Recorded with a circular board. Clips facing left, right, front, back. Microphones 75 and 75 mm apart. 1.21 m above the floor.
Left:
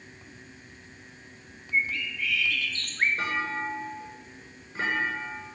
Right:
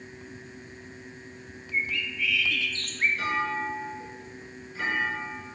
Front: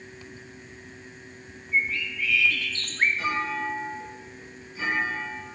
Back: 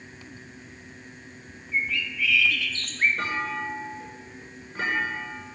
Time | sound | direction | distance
1.7 | a bird | 50° left | 2 m
3.2 | a clunk | 140° left | 9.5 m